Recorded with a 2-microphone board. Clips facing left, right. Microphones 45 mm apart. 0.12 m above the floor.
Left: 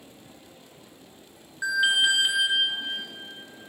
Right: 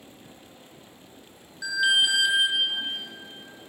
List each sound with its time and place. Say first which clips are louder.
1.6 s an alarm: even; 30° left (ahead or behind), 2.5 m